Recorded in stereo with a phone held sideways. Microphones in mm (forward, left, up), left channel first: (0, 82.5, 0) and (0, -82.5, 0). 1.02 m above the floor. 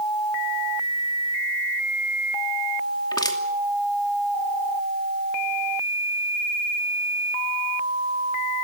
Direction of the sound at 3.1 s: 25° left (ahead or behind).